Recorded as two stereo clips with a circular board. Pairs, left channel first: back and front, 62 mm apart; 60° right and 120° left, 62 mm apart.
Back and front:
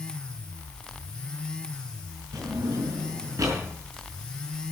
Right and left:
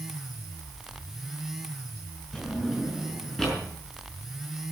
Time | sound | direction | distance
2.3 | a drawer | 25° left | 5.5 m